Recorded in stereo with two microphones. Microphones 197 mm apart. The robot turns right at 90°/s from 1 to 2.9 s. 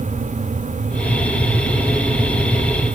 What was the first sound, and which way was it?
Only background noise.